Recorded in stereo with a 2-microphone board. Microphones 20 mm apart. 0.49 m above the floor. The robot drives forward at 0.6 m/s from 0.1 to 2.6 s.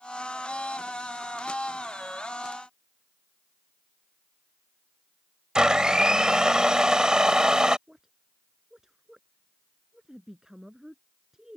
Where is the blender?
35° right (ahead or behind).